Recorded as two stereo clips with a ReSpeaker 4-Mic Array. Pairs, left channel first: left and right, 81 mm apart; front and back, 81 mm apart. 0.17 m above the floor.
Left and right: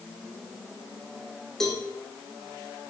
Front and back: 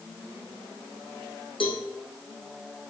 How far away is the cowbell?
About 3 m.